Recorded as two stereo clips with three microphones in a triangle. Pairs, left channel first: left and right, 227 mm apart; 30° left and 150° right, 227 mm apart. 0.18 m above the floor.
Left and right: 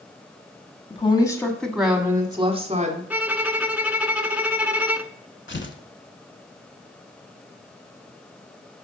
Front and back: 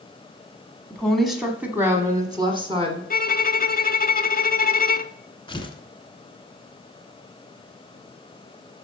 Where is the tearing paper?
90° left, 0.9 m.